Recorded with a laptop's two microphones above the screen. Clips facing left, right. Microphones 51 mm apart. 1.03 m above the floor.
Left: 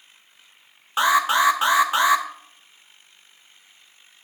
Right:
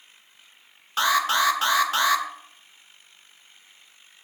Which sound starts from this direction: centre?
An alarm, at 1.0 s.